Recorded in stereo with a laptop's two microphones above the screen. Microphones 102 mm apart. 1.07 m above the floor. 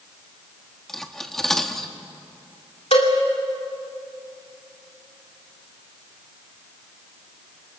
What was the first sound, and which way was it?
Cutlery clinking, 5° left (ahead or behind).